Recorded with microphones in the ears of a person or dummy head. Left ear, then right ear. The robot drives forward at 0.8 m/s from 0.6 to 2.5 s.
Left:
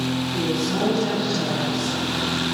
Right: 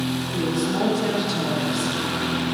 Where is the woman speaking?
10° right (ahead or behind), 2.5 m; by 2.0 s 20° right (ahead or behind), 1.6 m.